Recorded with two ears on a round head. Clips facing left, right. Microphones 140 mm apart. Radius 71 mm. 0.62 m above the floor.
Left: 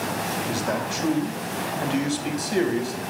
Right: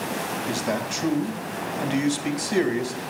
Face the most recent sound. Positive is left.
turn(degrees=-10)  # may be behind; listen again after turning